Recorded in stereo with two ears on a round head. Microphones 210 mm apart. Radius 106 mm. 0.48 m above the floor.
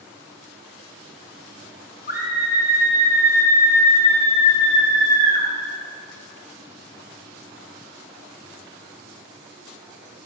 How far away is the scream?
About 4 m.